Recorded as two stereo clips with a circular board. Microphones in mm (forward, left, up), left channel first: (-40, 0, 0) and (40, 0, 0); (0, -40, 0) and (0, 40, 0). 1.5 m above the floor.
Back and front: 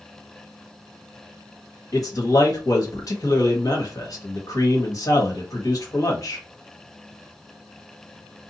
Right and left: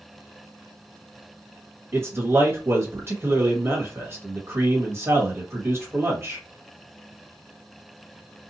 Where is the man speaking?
145° left, 1.4 m.